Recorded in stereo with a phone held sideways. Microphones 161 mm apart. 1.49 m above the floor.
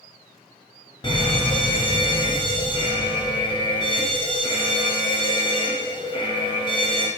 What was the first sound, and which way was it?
A fire alarm, 30° left (ahead or behind).